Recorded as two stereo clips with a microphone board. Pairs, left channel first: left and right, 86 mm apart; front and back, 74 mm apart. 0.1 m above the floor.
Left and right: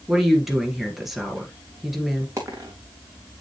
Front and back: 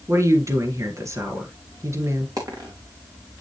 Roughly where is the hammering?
I don't hear hammering.